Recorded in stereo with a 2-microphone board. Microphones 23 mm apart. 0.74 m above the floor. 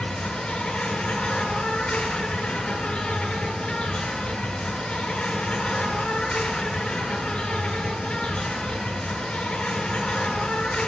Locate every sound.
0.0 s an insect: 65° left (ahead or behind), 1.8 m